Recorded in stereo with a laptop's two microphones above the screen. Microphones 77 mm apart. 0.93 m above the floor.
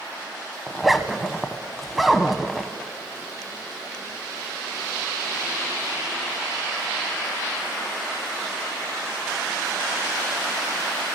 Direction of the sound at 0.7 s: Centre (ahead or behind).